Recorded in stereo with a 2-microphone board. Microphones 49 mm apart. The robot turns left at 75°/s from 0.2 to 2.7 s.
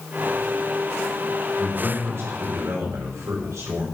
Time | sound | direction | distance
1.6 | a man speaking | 5° right | 4.5 m